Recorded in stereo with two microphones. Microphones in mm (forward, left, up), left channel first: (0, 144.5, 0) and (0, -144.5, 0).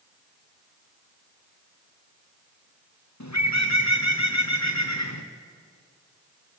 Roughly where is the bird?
Left.